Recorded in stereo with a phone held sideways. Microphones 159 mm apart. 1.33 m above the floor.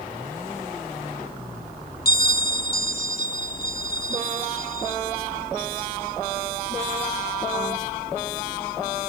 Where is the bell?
65° left (ahead or behind), 1.0 m.